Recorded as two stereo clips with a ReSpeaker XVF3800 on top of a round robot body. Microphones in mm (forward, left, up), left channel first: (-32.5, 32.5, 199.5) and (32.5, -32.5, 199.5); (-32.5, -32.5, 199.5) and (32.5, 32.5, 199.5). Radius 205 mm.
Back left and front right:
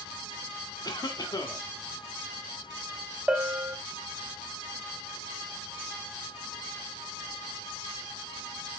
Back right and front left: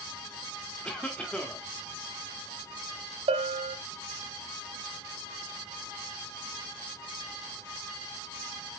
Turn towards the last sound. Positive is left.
turn(degrees=35)